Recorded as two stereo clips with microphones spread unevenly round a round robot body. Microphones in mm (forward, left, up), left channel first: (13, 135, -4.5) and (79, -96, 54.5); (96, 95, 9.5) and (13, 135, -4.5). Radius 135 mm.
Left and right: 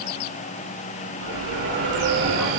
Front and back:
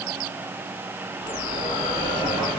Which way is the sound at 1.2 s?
70° right.